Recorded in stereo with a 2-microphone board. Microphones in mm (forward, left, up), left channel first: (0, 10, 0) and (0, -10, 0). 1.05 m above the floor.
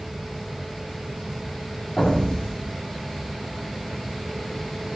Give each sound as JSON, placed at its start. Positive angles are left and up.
{"t": 2.0, "sound": "an explosion", "side_deg": 70, "distance_m": 3.5}